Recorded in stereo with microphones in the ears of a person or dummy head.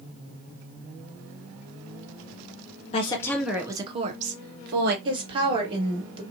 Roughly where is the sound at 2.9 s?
Left.